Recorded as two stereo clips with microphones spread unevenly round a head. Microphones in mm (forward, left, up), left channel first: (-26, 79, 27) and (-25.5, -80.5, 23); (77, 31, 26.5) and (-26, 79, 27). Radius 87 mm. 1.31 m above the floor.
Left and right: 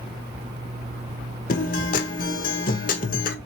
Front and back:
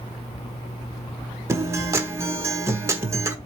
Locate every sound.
1.5 s a guitar: 95° left, 1.3 m